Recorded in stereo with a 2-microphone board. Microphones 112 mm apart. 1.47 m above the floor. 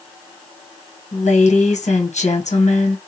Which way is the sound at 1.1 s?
80° left.